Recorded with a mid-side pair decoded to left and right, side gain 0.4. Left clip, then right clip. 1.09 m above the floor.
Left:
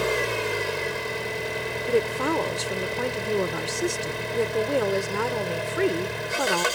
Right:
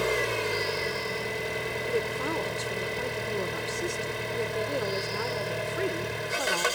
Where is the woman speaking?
60° left.